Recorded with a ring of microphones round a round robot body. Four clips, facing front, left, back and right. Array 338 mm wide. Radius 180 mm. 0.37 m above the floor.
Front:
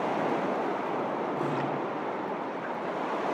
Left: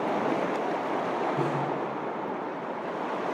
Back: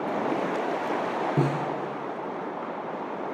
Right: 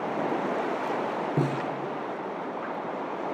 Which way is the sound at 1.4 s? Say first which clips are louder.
Even, back 4 dB; 135° right.